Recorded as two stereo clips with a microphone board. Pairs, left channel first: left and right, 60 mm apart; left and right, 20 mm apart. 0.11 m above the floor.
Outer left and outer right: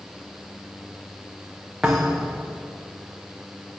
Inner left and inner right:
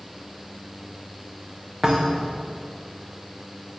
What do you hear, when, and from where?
1.8 s a thud: 5° right (ahead or behind), 3 m